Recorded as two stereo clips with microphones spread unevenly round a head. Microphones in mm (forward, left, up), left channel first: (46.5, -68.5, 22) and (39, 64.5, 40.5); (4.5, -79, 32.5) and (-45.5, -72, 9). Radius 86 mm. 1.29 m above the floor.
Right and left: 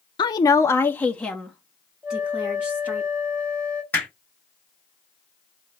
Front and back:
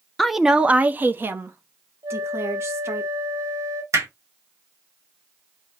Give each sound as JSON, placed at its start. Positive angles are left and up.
{"t": 0.2, "sound": "a woman speaking", "azimuth_deg": -115, "distance_m": 0.5}
{"t": 2.0, "sound": "a flute", "azimuth_deg": 155, "distance_m": 1.0}
{"t": 3.9, "sound": "hammering", "azimuth_deg": -165, "distance_m": 2.5}